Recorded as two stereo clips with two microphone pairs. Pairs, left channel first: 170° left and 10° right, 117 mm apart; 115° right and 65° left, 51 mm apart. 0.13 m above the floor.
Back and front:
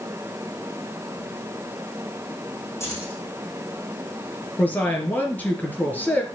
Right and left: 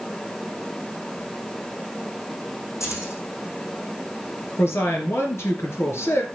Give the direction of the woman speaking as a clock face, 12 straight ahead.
4 o'clock.